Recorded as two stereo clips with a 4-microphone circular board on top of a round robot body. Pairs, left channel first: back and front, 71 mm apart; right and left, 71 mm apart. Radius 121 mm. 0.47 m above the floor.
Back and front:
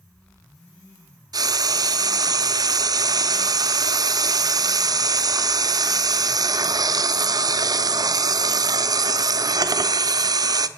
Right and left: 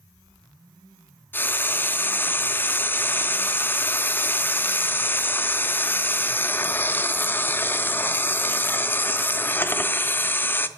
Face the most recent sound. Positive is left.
turn(degrees=-30)